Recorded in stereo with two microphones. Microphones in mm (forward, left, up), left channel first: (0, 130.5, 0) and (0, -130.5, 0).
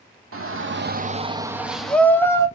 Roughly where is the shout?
Right.